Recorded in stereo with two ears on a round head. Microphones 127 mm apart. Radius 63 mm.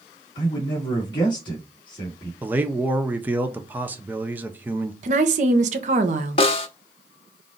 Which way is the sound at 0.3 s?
35° left (ahead or behind).